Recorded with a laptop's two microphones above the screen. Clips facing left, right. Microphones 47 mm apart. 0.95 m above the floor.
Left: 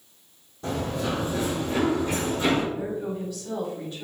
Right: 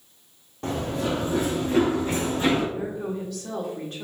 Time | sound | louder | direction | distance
0.6 | running footsteps | right 1 dB | 55° right (ahead or behind) | 1.6 m
2.7 | a woman speaking | even | 60° right (ahead or behind) | 1.5 m